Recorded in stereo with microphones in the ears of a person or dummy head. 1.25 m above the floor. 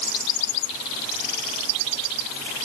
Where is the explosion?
I don't hear an explosion.